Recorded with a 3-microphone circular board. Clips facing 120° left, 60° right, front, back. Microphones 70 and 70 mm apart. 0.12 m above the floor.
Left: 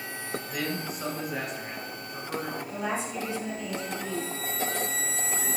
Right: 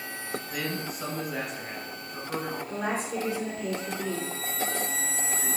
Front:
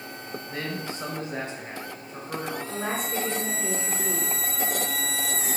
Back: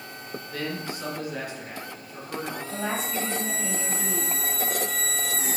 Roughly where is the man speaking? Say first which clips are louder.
Left 1 dB, back 1 dB; ahead left.